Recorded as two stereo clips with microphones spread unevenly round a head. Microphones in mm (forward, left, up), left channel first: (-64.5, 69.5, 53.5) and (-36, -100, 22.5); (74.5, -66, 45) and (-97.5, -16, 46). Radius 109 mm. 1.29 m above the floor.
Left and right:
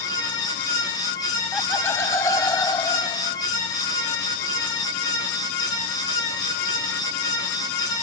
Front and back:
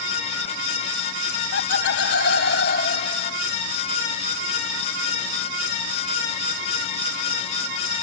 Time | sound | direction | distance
1.5 | laughter | 15° left | ?